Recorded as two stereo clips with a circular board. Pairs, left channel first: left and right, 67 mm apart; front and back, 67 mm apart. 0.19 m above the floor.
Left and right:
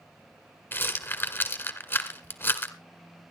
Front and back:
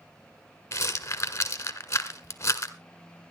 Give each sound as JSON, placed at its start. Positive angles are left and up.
{"t": 0.7, "sound": "a rattle", "azimuth_deg": 40, "distance_m": 1.3}